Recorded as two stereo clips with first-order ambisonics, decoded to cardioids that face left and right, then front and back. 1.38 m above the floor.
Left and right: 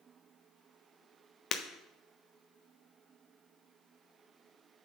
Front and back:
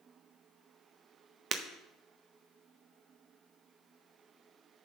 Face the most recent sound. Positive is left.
turn(degrees=135)